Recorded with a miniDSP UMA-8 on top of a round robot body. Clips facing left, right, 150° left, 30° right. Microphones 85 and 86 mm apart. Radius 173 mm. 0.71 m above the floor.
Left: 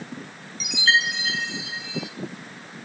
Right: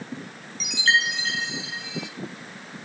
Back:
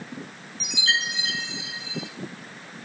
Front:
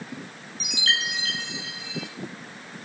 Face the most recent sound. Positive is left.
turn(degrees=5)